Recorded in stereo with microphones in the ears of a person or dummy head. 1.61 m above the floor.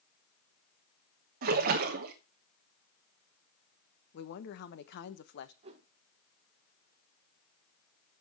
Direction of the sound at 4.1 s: 60° left (ahead or behind).